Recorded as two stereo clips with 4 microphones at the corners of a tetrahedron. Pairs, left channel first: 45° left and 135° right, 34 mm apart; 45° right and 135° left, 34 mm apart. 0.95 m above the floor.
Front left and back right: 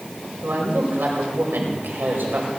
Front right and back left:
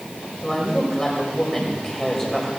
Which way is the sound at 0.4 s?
125° right.